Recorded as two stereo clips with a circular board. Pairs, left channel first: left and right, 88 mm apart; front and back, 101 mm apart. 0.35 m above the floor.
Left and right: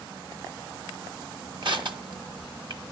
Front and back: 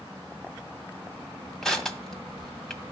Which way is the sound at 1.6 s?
85° right.